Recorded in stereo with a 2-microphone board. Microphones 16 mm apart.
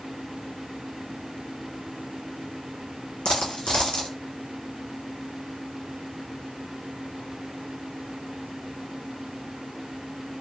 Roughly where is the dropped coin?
Left.